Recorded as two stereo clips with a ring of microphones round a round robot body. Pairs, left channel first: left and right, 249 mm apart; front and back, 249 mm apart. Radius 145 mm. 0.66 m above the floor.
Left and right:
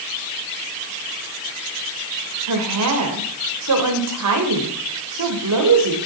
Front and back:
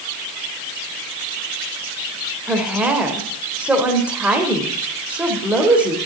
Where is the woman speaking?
95° right, 2.5 m.